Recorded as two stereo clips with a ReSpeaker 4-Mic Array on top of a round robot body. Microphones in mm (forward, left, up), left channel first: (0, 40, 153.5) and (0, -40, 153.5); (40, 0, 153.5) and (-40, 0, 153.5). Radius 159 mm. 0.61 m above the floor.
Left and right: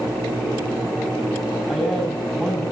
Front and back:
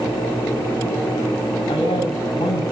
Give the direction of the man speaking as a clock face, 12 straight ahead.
12 o'clock.